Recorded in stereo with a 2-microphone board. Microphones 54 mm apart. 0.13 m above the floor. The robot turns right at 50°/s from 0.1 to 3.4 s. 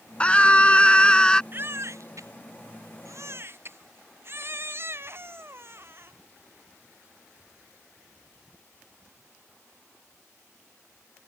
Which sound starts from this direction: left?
A scream, at 0.2 s.